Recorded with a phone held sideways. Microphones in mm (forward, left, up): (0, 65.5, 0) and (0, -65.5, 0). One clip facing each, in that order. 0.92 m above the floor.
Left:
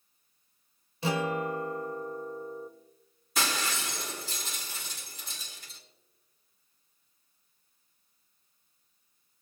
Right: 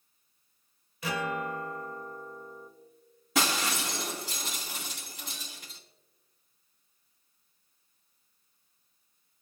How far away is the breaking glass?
About 4 m.